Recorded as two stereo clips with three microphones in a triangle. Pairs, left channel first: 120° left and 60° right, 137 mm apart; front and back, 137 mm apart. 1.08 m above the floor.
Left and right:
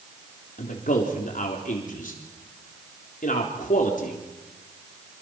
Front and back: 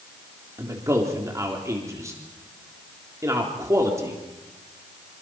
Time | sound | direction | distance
0.6 | a man speaking | 115° left | 3.5 m